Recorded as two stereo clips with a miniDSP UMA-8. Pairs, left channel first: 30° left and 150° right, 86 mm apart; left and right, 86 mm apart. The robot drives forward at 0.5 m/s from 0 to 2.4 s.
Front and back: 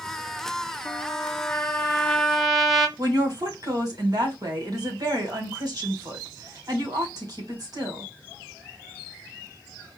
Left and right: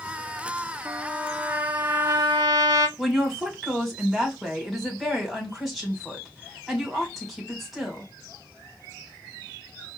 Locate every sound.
0.8 s a trumpet: 25° right, 1.2 m; by 2.9 s 60° right, 0.6 m
3.0 s a woman speaking: straight behind, 1.8 m